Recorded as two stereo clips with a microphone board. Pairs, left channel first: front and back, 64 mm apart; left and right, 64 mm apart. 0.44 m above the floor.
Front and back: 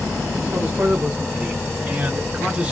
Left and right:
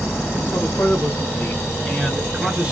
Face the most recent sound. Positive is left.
turn(degrees=-130)